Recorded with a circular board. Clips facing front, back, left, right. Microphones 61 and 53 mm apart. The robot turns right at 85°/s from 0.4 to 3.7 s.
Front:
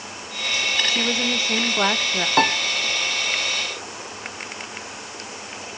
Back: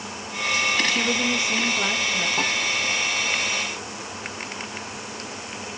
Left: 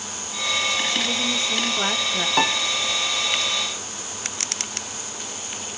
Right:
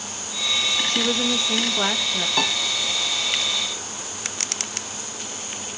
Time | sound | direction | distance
0.9 | a woman speaking | 95° right | 0.7 m
2.4 | a piano | 20° left | 0.6 m